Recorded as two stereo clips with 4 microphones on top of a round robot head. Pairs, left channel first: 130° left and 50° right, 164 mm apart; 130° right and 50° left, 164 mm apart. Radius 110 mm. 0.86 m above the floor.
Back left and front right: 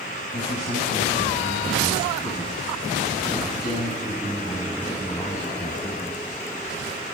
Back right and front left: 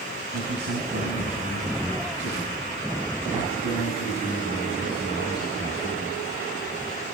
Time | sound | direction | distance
0.3 | a man speaking | 80° left | 7.5 m